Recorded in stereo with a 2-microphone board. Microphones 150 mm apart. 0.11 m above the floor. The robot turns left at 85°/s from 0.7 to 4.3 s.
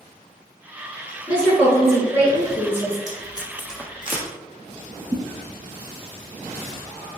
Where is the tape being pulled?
50° left (ahead or behind), 1.1 m; by 4.2 s 50° right (ahead or behind), 1.1 m.